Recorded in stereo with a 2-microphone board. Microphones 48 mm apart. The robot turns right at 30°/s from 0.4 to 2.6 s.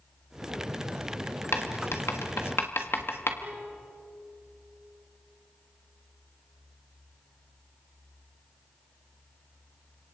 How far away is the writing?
About 1.6 m.